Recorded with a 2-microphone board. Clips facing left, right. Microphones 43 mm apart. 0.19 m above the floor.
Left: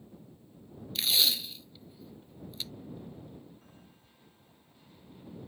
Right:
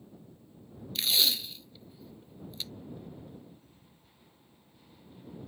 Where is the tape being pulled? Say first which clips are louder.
Even; centre (ahead or behind).